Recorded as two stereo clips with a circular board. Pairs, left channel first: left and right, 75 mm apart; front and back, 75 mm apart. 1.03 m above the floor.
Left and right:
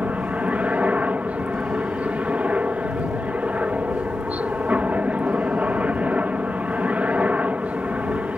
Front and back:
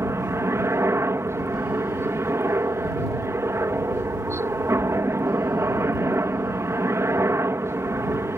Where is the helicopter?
155° right.